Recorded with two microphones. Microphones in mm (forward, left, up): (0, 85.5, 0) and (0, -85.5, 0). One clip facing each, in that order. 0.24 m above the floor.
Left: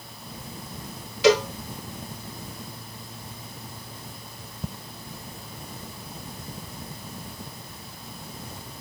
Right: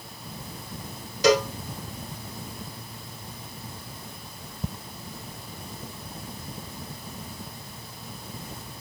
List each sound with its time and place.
1.2 s a cowbell: 45° right (ahead or behind), 1.1 m